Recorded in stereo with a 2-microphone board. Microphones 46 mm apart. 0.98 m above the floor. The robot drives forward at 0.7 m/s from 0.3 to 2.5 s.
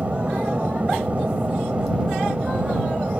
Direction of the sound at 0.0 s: 35° right (ahead or behind).